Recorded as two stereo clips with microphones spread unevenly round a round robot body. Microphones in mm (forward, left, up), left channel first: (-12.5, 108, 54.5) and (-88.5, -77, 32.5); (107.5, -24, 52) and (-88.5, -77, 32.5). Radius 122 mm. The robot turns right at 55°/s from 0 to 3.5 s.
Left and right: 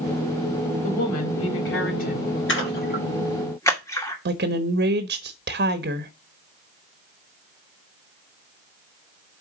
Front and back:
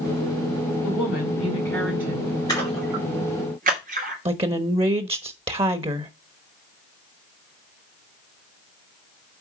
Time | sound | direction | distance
0.8 | a woman speaking | 50° left | 4 m
2.5 | a splash | 90° left | 2.5 m
4.2 | a woman speaking | 110° right | 1.1 m